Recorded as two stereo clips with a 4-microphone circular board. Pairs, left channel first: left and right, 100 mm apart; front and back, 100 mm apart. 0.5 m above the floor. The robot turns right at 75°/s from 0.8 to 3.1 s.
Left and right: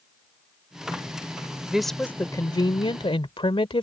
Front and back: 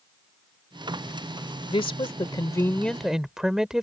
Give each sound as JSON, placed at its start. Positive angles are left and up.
{"t": 1.7, "sound": "a woman speaking", "azimuth_deg": -10}